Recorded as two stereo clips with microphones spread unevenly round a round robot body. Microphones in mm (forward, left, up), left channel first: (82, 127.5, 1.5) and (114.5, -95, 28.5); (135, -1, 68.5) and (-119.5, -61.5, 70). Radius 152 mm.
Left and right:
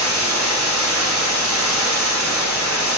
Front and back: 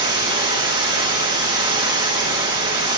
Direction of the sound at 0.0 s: 95° right.